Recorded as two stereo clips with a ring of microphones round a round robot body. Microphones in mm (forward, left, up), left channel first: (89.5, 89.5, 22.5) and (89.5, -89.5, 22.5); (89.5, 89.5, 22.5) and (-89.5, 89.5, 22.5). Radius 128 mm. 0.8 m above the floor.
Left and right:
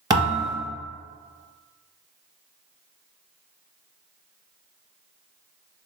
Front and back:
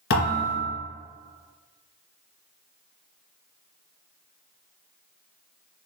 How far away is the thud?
About 2.0 m.